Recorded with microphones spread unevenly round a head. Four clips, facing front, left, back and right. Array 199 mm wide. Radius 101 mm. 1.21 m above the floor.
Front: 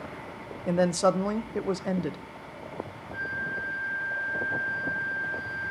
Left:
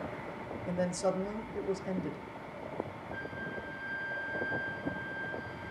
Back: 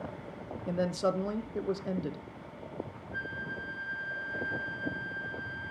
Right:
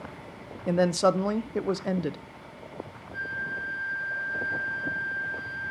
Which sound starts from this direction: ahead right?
A woman speaking, at 0.7 s.